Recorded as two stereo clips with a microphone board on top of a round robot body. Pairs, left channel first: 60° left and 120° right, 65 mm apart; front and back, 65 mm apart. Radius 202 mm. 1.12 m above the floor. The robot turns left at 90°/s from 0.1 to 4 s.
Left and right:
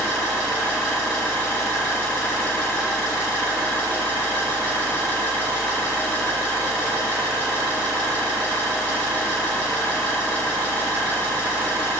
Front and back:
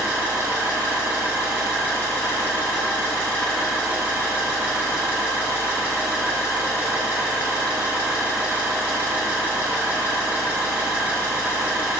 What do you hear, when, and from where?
0.0 s an engine running: 125° right, 1.3 m; by 12.0 s 115° right, 1.3 m